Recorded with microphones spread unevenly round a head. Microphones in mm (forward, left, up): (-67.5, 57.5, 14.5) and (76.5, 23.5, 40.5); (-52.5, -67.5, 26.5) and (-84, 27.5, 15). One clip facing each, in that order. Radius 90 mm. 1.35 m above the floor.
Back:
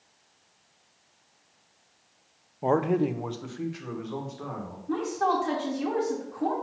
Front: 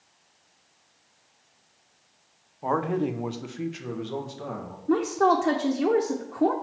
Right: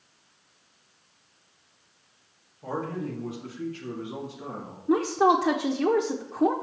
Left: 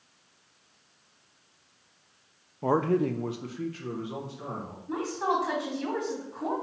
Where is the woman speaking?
55° right, 0.7 m.